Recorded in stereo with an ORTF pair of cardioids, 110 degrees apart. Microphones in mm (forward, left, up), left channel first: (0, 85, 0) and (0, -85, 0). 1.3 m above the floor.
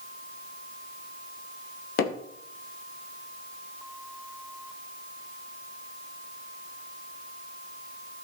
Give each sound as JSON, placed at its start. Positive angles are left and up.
{"t": 2.0, "sound": "hammering", "azimuth_deg": 70, "distance_m": 2.0}